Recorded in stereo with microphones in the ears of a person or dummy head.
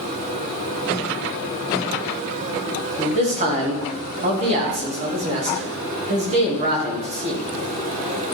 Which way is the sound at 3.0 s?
35° right (ahead or behind).